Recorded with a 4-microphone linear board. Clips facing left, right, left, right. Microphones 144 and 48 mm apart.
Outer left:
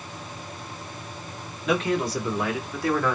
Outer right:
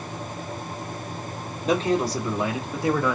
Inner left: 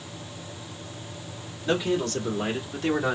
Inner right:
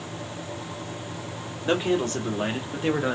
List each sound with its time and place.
1.6 s a man speaking: 40° right (ahead or behind), 2 m; by 3.1 s 15° right (ahead or behind), 1.3 m